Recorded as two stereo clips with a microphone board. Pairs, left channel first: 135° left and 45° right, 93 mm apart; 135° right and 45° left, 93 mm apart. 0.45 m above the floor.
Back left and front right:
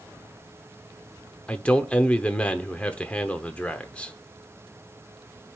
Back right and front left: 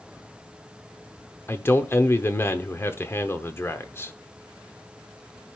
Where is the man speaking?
160° right, 0.8 m.